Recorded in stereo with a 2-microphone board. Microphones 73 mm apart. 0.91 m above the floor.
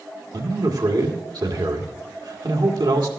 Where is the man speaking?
70° right (ahead or behind), 2 m.